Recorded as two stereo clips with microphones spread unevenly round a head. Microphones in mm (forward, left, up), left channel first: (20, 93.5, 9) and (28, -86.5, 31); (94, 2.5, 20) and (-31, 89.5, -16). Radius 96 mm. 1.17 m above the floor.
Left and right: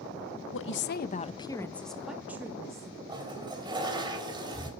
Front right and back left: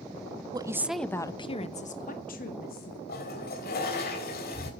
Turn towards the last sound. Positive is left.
turn(degrees=-20)